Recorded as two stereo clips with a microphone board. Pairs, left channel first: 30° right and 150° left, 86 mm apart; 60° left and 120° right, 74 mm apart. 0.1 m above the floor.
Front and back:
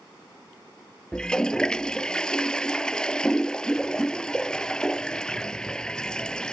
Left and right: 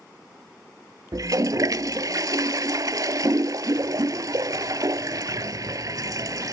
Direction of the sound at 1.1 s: 110° right.